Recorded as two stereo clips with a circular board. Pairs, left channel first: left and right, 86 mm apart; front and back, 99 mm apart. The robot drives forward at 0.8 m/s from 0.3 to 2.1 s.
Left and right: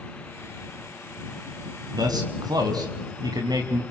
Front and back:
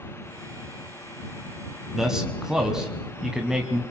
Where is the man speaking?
90° right, 2.5 m; by 3.8 s 95° right, 2.5 m.